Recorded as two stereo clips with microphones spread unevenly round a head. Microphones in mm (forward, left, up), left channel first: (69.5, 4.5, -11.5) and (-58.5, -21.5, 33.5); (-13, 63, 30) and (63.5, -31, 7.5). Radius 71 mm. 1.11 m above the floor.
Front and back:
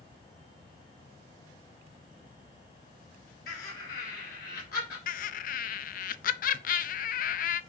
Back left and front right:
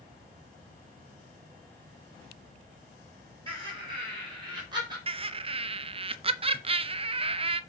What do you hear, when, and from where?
3.5 s laughter: 5° right, 3 m; by 5.0 s 5° left, 4 m
5.1 s laughter: 10° right, 0.6 m